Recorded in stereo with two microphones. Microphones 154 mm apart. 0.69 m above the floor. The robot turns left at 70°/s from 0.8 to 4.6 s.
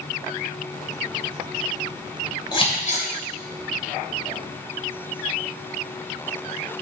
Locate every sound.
2.5 s scissors: 30° left (ahead or behind), 2.5 m; by 3.0 s 65° left (ahead or behind), 2.5 m